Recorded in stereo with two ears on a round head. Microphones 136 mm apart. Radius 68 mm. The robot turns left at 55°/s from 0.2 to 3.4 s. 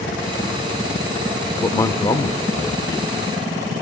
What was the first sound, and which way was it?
A man speaking, 15° left (ahead or behind).